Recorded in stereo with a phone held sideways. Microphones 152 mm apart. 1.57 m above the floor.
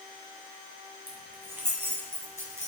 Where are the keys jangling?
15° right (ahead or behind), 4.5 m; by 2.7 s 20° right (ahead or behind), 6 m.